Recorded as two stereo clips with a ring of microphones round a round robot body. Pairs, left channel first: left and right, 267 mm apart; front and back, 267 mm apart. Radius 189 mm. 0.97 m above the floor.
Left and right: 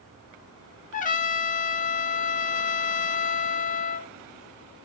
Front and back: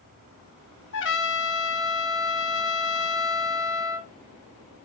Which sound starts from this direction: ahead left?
A trumpet, at 0.9 s.